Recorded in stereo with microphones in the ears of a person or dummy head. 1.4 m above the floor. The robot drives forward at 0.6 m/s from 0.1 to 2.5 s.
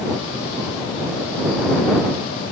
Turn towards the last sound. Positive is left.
No sound to turn to.